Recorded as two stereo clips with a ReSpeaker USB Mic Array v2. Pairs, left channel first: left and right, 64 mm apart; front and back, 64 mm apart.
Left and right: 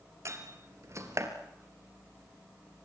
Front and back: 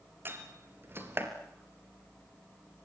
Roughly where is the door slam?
Behind right.